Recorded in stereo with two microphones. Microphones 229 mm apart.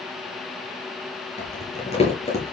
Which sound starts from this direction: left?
Crumpling, at 1.4 s.